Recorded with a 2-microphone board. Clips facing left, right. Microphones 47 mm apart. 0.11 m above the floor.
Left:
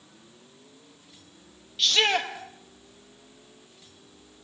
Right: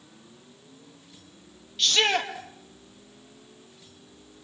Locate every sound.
1.8 s a shout: 5° left (ahead or behind), 3 m